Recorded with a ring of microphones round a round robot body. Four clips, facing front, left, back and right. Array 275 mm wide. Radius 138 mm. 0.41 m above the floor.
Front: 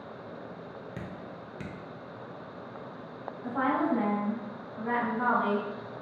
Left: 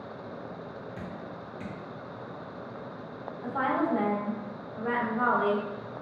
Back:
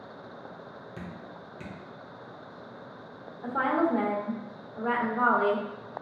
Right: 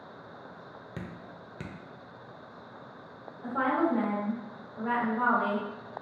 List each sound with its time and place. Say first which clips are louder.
1.0 s dripping: left 4 dB, front 1 dB; 65° right, 0.7 m
3.4 s a woman speaking: right 1 dB, back 2 dB; straight behind, 1.5 m